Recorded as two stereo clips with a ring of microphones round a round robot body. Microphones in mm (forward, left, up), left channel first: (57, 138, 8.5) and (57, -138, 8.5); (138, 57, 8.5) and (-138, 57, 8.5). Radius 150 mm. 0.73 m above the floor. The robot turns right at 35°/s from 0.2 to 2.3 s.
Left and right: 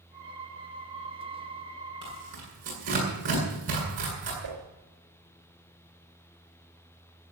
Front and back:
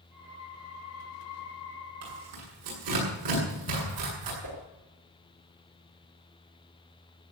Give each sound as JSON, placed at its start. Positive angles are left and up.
{"t": 2.0, "sound": "tearing paper", "azimuth_deg": -165, "distance_m": 8.5}
{"t": 4.4, "sound": "a whoosh", "azimuth_deg": -145, "distance_m": 4.0}